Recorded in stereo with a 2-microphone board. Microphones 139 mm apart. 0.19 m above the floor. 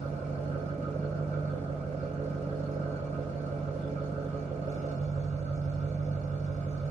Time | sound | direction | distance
0.0 | an engine running | 60° right (ahead or behind) | 0.8 m